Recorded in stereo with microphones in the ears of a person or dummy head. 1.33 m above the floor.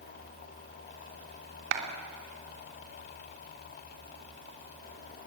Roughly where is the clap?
Right.